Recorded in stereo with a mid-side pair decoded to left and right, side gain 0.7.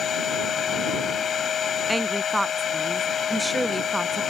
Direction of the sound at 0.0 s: 35° left.